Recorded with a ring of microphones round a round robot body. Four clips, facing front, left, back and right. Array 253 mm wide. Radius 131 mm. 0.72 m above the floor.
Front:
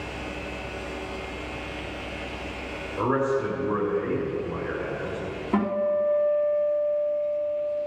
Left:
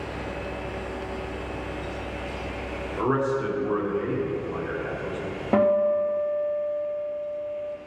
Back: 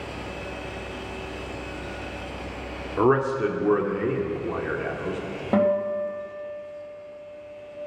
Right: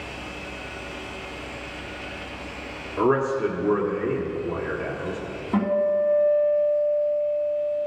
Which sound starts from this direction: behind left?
A guitar, at 5.5 s.